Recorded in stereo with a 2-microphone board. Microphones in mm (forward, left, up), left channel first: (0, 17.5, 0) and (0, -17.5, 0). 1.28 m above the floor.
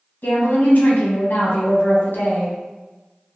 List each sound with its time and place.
0.2 s a woman speaking: 70° left (ahead or behind), 1.0 m